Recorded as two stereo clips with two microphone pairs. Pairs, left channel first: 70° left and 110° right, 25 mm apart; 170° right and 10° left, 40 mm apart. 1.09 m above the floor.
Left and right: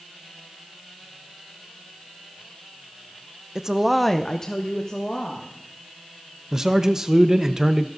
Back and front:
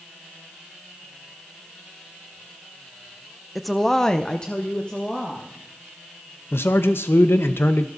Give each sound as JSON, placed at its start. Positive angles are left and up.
{"t": 3.5, "sound": "a woman speaking", "azimuth_deg": -75, "distance_m": 0.7}
{"t": 6.5, "sound": "a man speaking", "azimuth_deg": -175, "distance_m": 0.6}